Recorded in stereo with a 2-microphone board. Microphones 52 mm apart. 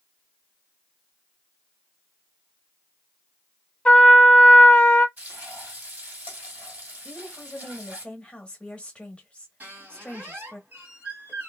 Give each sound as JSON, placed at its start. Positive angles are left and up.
{"t": 3.9, "sound": "a trumpet", "side_deg": 25, "distance_m": 0.8}
{"t": 5.2, "sound": "frying", "side_deg": -30, "distance_m": 1.5}
{"t": 7.0, "sound": "a woman speaking", "side_deg": 25, "distance_m": 1.0}
{"t": 9.6, "sound": "a squeak", "side_deg": -30, "distance_m": 1.2}